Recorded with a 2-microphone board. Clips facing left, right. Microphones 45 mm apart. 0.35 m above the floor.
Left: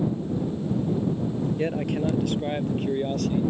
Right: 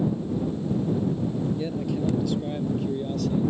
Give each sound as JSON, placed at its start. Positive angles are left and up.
{"t": 1.6, "sound": "a man speaking", "side_deg": 55}